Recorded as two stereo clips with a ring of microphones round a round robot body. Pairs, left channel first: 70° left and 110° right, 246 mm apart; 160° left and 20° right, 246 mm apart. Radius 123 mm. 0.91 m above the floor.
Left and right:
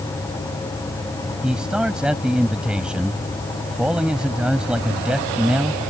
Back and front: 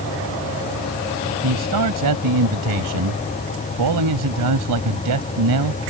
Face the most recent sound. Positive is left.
turn(degrees=-25)